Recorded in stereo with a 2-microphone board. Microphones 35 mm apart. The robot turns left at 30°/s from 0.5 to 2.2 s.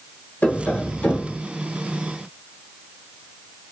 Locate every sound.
0.4 s tapping: 50° left (ahead or behind), 0.9 m; by 1.4 s 40° left (ahead or behind), 0.9 m